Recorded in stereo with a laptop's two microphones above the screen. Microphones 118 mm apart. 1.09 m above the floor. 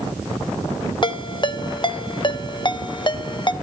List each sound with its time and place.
1.0 s a ringtone: 40° left (ahead or behind), 0.9 m